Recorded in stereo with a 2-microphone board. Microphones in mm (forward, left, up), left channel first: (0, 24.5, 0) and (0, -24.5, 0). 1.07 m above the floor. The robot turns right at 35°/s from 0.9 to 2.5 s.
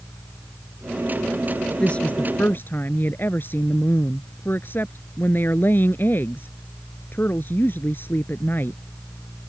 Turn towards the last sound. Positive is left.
turn(degrees=40)  # may be behind; listen again after turning